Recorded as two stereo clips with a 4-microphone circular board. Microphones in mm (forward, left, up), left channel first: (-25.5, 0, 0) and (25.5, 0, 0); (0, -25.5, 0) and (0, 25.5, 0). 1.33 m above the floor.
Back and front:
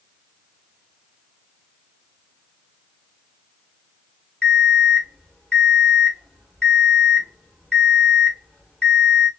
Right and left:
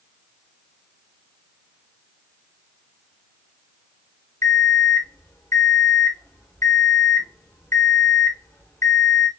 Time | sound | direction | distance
4.4 | an alarm clock | 110° right | 1.6 m